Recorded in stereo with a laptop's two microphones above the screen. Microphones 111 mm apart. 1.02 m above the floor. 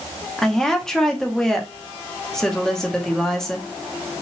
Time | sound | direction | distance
0.4 | a woman speaking | 5° left (ahead or behind) | 0.8 m